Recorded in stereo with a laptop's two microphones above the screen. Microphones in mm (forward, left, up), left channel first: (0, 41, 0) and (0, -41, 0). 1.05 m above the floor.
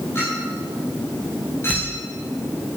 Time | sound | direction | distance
0.1 | a clink | 30° left (ahead or behind) | 5.5 m